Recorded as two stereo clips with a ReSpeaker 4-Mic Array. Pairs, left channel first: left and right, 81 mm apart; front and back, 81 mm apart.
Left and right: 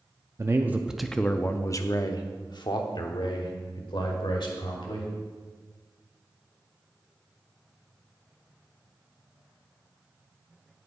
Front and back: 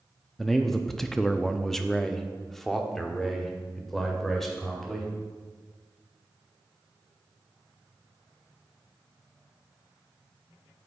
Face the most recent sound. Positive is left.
turn(degrees=90)